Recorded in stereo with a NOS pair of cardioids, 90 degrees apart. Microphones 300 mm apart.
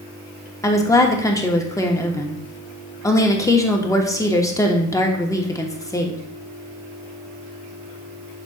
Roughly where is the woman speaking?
Ahead.